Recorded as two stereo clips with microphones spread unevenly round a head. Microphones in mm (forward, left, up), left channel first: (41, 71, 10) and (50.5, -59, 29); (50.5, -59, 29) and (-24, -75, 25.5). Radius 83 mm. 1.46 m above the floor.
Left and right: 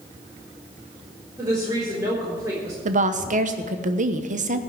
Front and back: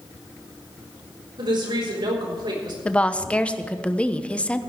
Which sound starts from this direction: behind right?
A woman speaking, at 1.4 s.